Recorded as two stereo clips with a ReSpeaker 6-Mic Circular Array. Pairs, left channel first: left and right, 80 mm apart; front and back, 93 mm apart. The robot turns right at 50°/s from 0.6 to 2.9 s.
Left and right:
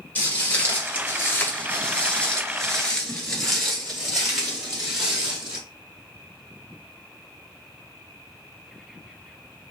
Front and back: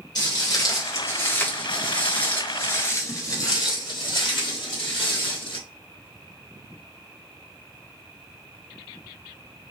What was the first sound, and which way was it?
Footsteps, 30° left.